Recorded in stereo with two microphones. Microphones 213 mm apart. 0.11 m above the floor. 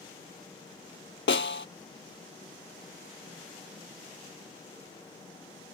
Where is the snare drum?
65° left (ahead or behind).